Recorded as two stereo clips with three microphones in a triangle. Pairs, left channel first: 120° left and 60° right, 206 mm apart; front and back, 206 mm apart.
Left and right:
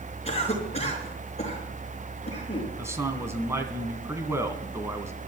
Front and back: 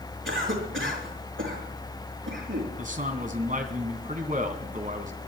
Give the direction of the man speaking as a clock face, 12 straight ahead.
5 o'clock.